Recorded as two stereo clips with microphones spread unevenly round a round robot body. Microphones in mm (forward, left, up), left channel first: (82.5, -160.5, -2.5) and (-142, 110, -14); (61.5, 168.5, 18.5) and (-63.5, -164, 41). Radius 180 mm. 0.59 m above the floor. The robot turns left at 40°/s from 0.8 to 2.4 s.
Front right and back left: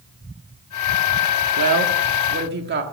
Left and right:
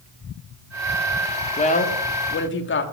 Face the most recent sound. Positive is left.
turn(degrees=90)